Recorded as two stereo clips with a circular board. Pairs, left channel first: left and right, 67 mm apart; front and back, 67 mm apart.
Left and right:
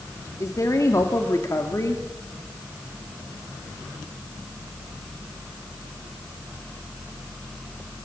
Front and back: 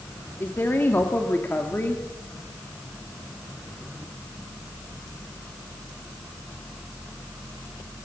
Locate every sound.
0.4 s a woman speaking: 60° left, 2 m